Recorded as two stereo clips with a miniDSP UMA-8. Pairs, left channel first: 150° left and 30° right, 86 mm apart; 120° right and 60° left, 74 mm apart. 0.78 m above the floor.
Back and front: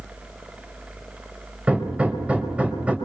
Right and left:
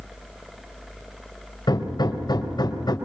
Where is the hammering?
105° right, 4 m.